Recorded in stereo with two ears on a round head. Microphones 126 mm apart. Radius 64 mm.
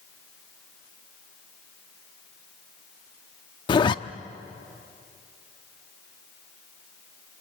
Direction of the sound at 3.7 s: 35° left (ahead or behind).